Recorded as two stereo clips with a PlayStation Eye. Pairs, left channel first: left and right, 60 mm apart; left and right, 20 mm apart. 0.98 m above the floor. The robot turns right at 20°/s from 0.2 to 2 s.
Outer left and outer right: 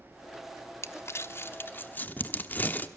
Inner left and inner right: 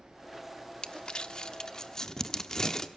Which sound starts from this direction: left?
Crumpling, at 0.8 s.